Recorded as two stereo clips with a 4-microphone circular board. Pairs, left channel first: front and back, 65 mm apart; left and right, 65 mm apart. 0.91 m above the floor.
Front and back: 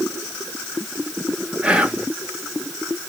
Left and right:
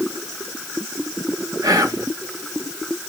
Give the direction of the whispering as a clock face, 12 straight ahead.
4 o'clock.